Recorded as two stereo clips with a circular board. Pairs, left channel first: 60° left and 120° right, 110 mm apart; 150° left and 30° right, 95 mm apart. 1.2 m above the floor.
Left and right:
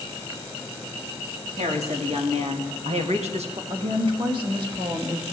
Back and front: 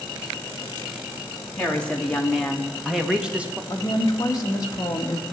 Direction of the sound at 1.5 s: 135° right.